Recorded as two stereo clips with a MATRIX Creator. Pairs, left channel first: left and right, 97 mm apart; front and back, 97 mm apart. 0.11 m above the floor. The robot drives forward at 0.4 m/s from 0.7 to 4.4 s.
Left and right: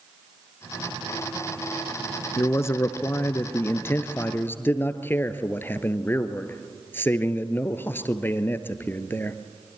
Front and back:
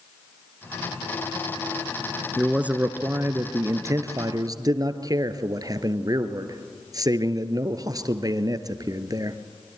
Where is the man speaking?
110° left, 1.1 m; by 9.4 s 150° left, 1.5 m.